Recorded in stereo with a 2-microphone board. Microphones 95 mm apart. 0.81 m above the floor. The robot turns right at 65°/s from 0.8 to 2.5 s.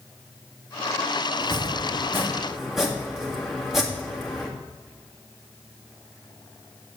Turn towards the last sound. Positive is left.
turn(degrees=-5)  # may be behind; listen again after turning